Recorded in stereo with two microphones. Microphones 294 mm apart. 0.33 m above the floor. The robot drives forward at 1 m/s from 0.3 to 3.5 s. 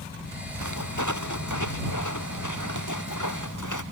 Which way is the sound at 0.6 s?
75° left (ahead or behind).